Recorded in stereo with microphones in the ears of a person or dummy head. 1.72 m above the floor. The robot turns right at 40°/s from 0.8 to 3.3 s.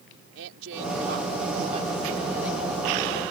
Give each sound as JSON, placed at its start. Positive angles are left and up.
{"t": 0.3, "sound": "a woman speaking", "azimuth_deg": -75}